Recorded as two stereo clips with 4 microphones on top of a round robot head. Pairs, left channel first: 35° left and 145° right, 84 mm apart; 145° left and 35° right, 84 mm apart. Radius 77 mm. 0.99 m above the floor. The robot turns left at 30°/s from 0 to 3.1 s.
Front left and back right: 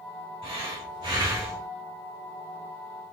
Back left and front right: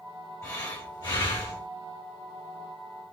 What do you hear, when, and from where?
0.4 s breathing: 165° right, 1.8 m; by 1.7 s 160° left, 1.8 m